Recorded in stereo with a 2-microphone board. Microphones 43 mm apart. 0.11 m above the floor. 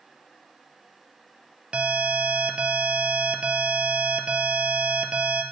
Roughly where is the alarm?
Right.